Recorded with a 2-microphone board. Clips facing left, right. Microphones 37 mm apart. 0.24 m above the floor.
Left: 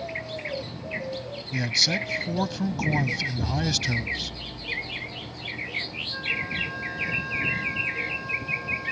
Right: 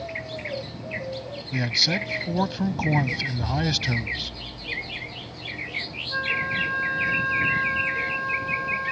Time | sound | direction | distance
1.5 | a man speaking | 15° right (ahead or behind) | ?
3.3 | an explosion | 70° left (ahead or behind) | ?
6.1 | a flute | 40° right (ahead or behind) | ?